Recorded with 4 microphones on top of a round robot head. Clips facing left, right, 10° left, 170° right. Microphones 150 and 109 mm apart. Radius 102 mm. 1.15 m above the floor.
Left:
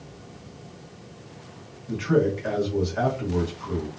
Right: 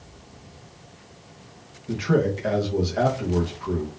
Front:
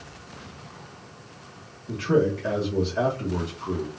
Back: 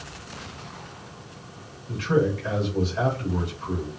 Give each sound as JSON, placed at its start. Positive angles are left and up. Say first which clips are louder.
{"t": 1.9, "sound": "a man speaking", "louder": "even, front 1 dB", "azimuth_deg": -35, "distance_m": 1.1}